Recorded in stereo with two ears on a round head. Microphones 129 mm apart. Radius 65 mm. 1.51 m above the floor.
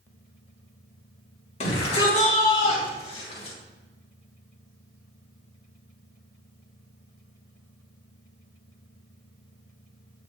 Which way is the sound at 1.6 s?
50° left (ahead or behind).